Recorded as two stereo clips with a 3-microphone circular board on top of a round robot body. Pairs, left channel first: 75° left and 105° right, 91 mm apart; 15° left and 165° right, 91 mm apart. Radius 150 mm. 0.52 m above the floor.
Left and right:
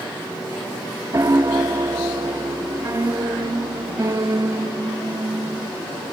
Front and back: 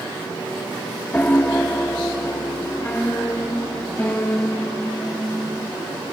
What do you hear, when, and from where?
1.1 s a piano: 55° right, 1.0 m